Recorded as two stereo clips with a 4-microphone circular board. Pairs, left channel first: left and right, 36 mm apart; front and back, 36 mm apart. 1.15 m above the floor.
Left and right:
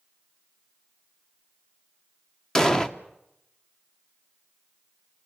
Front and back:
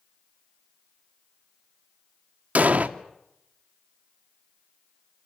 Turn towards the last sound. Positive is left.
turn(degrees=160)